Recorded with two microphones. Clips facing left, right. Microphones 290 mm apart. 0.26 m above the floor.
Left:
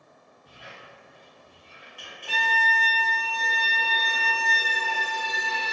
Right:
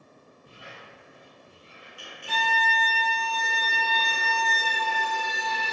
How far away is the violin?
About 1.9 m.